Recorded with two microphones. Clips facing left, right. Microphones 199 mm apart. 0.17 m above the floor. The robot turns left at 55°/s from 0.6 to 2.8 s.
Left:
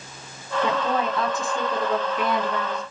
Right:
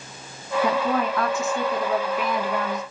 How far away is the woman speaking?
About 1.2 m.